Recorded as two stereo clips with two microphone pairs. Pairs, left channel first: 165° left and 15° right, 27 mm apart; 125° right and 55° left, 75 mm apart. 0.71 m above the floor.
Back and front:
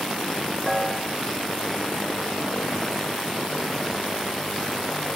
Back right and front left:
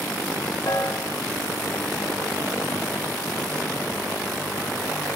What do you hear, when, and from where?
0.7 s a piano: 105° right, 1.8 m